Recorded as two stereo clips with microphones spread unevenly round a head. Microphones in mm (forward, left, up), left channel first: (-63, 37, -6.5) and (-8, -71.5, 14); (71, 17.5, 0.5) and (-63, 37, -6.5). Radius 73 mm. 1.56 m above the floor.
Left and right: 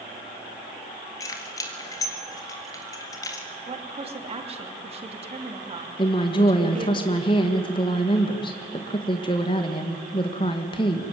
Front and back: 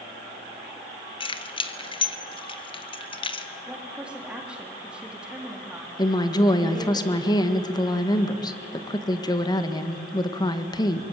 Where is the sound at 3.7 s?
105° right, 3 m.